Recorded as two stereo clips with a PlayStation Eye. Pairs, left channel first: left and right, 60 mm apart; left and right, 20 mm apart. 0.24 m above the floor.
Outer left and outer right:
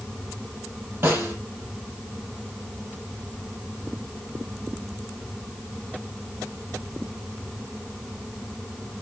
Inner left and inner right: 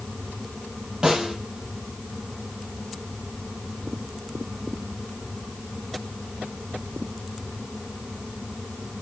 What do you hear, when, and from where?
1.0 s a snare drum: 40° right (ahead or behind), 5.5 m